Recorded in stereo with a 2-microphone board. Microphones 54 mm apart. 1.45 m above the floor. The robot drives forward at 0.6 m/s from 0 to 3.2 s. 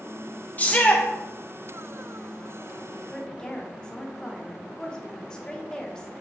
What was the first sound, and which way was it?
A shout, 30° left (ahead or behind).